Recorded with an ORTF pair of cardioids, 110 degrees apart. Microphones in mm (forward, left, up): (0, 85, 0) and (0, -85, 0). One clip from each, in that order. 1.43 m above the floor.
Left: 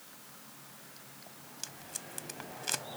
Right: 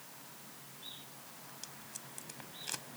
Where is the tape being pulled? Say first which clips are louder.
Left 8 dB; 40° left.